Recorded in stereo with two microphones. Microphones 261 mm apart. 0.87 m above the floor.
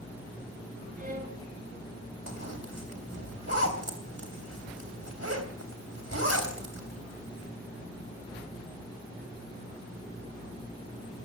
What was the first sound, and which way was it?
A violin, 35° right (ahead or behind).